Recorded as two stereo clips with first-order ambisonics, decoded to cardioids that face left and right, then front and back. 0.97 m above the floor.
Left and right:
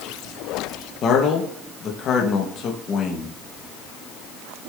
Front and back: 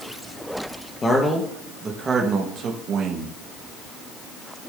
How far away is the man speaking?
About 1.0 m.